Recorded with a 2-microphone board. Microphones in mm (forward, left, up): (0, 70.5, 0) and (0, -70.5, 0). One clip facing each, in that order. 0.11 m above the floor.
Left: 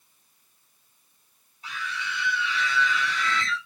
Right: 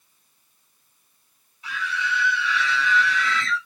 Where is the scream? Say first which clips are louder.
Right 5 dB; 40° left (ahead or behind), 4 m; by 3.6 s 50° left (ahead or behind), 3 m.